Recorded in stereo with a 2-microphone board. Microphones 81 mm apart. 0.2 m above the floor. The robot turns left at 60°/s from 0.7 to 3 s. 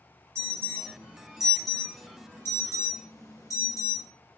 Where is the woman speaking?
No woman speaking in this recording.